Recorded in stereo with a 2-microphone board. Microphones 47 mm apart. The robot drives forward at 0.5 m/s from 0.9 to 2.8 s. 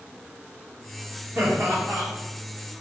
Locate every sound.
1.4 s laughter: 60° right (ahead or behind), 1.5 m; by 2.1 s 50° right (ahead or behind), 1.6 m